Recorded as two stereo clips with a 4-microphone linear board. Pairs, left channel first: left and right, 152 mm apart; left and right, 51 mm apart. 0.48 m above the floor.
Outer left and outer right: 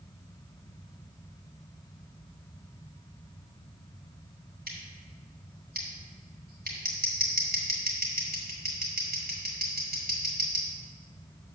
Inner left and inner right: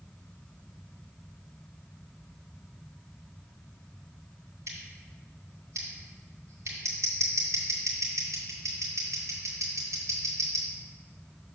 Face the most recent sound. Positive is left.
turn(degrees=-80)